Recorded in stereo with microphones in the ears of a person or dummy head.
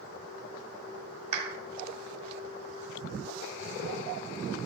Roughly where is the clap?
Right.